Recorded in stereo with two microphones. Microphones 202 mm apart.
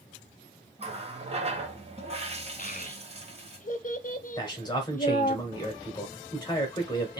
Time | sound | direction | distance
0.8 | a running tap | 30° right (ahead or behind) | 0.9 m
2.6 | a child speaking | 40° left (ahead or behind) | 0.6 m
4.4 | a man speaking | 20° left (ahead or behind) | 1.6 m